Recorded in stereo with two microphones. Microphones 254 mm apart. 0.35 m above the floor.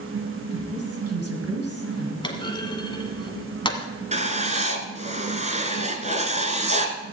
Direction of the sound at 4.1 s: 30° right (ahead or behind).